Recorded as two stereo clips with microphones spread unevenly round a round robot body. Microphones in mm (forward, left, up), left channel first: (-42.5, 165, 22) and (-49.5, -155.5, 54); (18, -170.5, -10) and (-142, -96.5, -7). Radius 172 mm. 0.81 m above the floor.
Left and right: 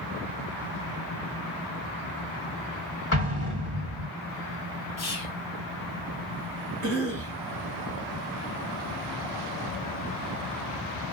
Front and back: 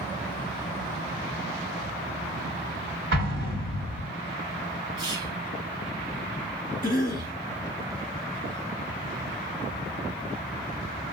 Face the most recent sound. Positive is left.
turn(degrees=20)